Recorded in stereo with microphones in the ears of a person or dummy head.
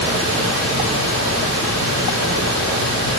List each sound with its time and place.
0.0 s a fan: 85° right, 4 m